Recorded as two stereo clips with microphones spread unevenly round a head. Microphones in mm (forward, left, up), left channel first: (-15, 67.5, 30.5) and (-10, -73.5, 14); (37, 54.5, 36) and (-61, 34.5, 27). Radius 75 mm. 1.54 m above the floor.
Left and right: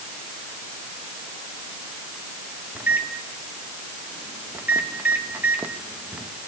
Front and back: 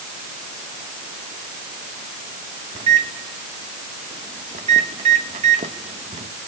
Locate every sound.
2.8 s a microwave: 170° right, 1.1 m